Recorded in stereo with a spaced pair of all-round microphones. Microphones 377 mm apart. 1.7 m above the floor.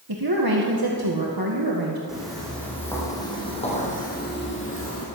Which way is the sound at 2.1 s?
Centre (ahead or behind).